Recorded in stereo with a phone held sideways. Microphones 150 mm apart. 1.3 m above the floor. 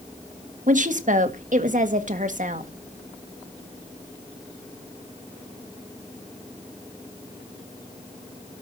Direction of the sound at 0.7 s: 60° right (ahead or behind).